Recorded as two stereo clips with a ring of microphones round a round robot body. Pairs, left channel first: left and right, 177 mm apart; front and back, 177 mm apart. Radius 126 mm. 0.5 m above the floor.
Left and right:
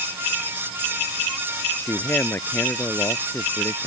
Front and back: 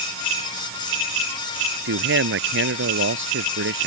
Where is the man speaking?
175° left.